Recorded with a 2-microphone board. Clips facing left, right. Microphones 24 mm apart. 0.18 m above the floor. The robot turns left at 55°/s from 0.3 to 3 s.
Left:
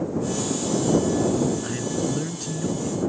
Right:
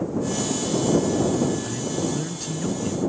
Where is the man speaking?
35° left; by 3.0 s 40° right.